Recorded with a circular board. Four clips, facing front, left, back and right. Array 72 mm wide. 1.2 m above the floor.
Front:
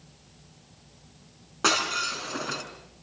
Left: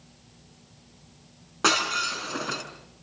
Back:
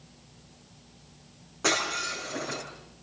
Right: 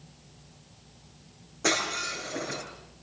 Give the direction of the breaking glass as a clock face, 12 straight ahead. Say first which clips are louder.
Left 4 dB, front 2 dB; 10 o'clock.